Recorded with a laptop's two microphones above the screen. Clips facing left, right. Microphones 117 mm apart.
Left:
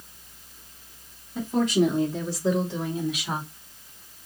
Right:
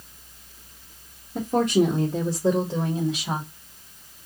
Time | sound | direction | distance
1.4 | a woman speaking | 55° right (ahead or behind) | 1.2 m